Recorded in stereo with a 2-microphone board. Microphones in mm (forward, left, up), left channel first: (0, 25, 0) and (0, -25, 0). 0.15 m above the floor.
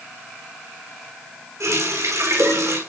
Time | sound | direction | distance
1.6 | a running tap | 80° right | 5.5 m